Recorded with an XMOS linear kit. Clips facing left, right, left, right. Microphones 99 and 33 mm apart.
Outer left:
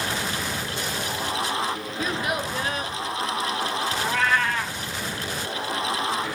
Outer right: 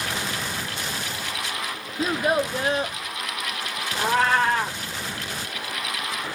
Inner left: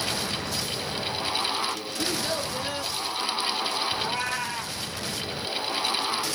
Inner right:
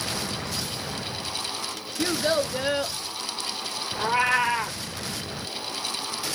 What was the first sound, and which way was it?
A child speaking, 35° right (ahead or behind).